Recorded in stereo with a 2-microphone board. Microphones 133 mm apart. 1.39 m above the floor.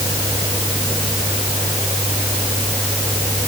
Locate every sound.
Only background noise.